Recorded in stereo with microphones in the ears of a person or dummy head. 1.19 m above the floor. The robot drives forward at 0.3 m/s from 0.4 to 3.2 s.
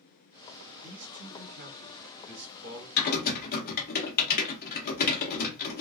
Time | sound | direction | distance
0.8 | a man speaking | 80° right | 1.7 m
3.0 | typing on a keyboard | 60° left (ahead or behind) | 0.6 m